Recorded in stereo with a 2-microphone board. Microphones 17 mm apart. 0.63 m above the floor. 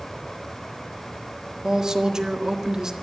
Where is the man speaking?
35° right (ahead or behind), 1.5 m.